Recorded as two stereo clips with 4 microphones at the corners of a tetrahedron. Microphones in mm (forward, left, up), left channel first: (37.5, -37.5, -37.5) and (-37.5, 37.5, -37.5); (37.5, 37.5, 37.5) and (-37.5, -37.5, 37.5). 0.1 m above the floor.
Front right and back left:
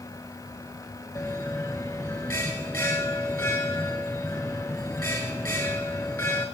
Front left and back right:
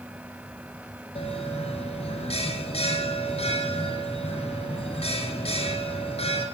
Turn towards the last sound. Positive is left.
turn(degrees=20)